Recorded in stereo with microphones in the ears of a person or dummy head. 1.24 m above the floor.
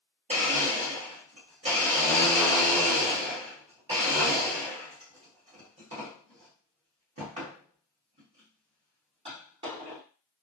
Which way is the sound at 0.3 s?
25° right (ahead or behind).